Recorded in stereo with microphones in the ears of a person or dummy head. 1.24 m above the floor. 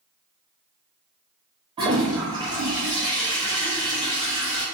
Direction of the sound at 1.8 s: 20° right (ahead or behind).